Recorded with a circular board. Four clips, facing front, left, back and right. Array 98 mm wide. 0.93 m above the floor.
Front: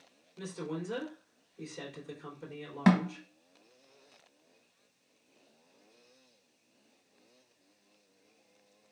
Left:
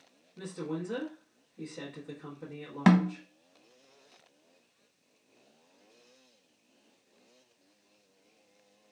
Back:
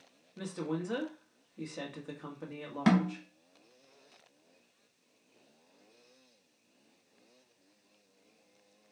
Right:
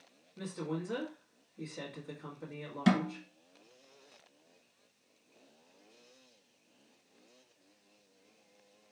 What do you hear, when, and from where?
0.4 s a woman speaking: 175° right, 1.2 m
2.9 s a snare drum: 80° left, 0.8 m